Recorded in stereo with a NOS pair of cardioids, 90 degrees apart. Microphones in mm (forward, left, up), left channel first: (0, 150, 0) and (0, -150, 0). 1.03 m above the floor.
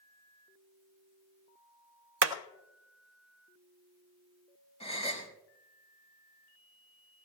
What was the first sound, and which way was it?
Hammering, 55° right.